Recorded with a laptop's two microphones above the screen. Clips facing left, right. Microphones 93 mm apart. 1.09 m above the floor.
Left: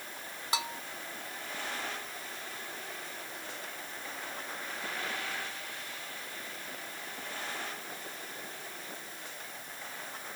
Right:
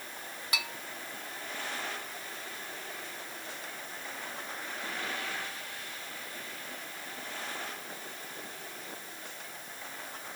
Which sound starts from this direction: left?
A bell, at 0.5 s.